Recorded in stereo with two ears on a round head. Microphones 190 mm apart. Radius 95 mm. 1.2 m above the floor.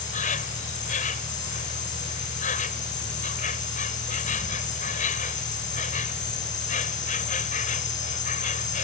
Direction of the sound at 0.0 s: 40° left (ahead or behind).